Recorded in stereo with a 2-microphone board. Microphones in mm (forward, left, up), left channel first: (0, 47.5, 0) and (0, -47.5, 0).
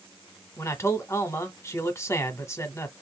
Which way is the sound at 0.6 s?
30° left (ahead or behind).